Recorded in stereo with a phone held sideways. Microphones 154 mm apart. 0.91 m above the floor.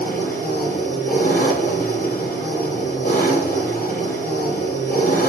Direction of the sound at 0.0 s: 75° left (ahead or behind).